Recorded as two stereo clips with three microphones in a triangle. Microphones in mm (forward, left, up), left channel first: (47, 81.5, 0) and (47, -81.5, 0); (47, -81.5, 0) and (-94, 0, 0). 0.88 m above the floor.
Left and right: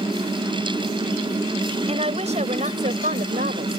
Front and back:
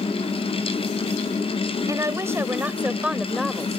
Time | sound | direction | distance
1.9 | a woman speaking | 140° right | ?